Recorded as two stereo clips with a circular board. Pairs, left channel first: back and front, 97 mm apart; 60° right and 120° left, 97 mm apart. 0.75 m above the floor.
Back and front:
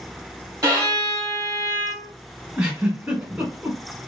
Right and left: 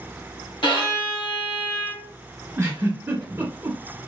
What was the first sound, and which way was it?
A violin, 50° right.